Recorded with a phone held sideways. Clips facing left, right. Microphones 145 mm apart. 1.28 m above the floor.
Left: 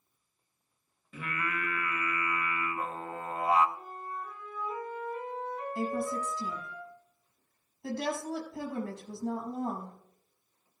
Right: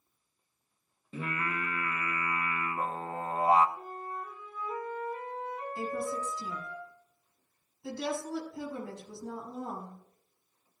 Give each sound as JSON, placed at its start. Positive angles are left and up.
{"t": 1.1, "sound": "singing", "side_deg": -30, "distance_m": 0.9}
{"t": 3.8, "sound": "a flute", "side_deg": -5, "distance_m": 8.0}
{"t": 5.8, "sound": "a woman speaking", "side_deg": 65, "distance_m": 6.5}